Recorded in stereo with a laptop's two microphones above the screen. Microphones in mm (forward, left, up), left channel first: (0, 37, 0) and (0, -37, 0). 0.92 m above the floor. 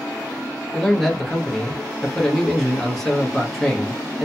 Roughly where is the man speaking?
Centre.